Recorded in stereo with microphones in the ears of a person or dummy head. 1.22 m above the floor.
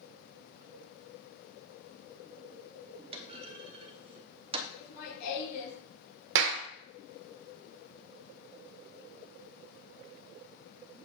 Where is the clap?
65° right (ahead or behind), 0.6 m.